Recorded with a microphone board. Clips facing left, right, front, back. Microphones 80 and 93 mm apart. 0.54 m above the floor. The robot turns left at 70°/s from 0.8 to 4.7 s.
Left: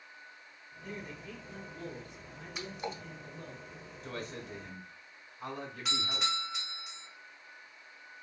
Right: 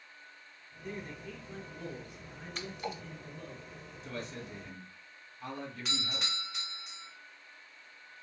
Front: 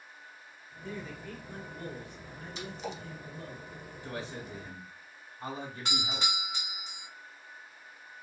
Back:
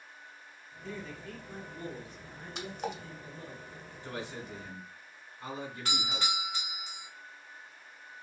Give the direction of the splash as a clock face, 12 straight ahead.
6 o'clock.